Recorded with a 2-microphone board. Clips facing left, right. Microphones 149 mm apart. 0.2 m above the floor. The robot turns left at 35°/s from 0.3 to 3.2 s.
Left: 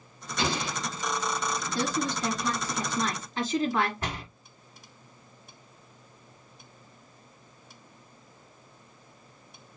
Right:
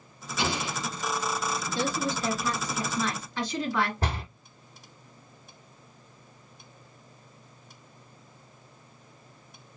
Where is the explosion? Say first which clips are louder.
Even; 65° left (ahead or behind), 3.5 m; by 0.8 s 70° left (ahead or behind), 3.5 m.